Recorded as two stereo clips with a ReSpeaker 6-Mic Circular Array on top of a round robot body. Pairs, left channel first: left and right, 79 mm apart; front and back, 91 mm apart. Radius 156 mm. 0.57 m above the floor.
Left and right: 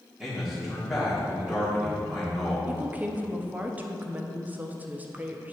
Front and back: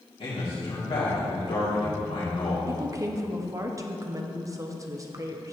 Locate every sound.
0.2 s a man speaking: 5° right, 2 m
2.7 s a woman speaking: 150° right, 0.9 m